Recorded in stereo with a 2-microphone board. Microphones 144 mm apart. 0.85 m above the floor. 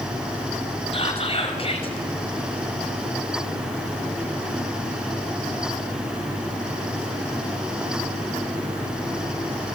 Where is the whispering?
40° left (ahead or behind), 5.5 m.